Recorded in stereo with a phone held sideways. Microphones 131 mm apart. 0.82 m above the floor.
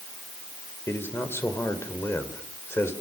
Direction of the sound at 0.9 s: 20° left (ahead or behind).